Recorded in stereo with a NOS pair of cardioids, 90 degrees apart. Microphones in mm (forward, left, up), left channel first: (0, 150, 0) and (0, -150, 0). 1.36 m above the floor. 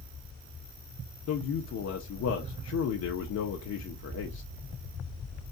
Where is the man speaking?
60° left, 0.9 m.